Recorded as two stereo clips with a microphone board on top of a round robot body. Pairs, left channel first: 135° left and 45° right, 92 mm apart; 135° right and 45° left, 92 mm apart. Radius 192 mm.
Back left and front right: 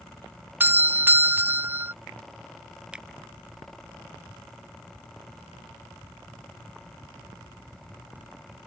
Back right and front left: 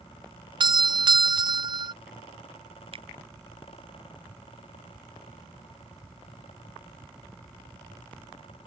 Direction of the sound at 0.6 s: 20° left.